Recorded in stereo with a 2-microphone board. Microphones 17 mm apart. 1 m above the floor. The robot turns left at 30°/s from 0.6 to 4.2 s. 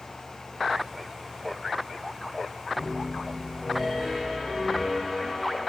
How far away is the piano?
About 1.9 m.